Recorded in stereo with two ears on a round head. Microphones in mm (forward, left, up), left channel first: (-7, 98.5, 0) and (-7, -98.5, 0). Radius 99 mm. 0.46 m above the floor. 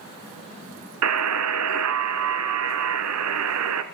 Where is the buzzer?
75° right (ahead or behind), 1.0 m.